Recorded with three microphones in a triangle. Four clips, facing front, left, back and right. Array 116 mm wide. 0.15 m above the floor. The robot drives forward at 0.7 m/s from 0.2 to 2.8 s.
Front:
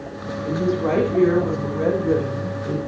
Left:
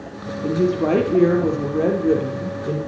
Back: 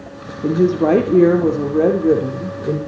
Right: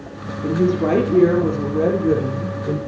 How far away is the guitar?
No guitar in this recording.